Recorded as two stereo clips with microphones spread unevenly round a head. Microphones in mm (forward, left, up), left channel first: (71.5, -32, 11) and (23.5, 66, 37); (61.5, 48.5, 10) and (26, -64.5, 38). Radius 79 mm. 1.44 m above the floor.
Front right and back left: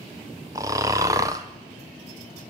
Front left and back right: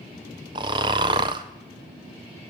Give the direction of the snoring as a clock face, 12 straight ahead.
6 o'clock.